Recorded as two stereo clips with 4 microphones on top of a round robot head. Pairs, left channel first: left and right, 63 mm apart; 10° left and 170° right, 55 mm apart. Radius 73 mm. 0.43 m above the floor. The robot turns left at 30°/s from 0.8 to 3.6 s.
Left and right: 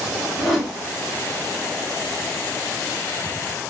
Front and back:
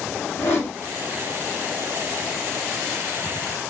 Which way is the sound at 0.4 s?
5° right.